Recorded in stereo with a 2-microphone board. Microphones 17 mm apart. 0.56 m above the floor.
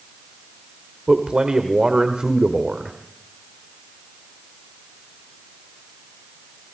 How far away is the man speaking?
About 1.8 m.